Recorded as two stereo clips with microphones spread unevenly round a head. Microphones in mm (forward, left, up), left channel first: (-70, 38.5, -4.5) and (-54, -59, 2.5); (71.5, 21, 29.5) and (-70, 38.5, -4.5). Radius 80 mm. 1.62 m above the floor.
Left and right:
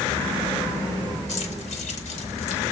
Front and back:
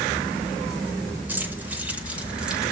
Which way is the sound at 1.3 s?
95° left.